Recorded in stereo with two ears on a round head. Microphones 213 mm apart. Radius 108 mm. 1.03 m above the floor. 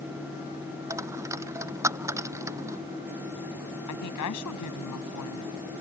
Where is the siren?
I don't hear a siren.